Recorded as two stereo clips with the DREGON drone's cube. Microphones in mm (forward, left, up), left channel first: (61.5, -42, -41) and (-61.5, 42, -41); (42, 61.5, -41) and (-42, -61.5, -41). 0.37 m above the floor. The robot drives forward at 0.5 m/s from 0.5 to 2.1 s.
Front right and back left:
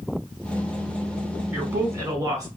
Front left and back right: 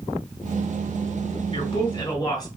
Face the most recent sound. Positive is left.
turn(degrees=95)